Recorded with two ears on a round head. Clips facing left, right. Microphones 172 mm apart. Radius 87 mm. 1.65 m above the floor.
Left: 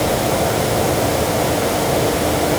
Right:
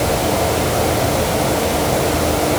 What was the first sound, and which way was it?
Only background noise.